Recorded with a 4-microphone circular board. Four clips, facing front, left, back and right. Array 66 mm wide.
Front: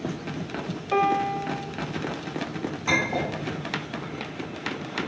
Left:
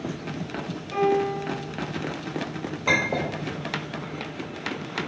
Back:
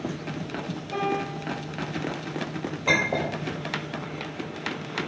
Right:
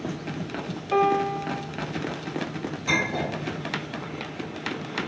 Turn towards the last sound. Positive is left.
turn(degrees=115)